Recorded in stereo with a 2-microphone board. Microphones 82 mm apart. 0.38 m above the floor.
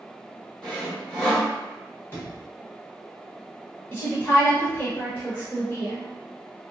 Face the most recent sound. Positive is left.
turn(degrees=30)  # may be behind; listen again after turning